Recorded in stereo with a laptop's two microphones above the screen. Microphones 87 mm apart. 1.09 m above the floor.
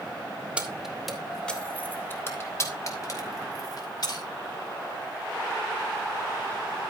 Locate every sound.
0.6 s keys jangling: 15° right (ahead or behind), 2.5 m; by 4.2 s 55° left (ahead or behind), 4.5 m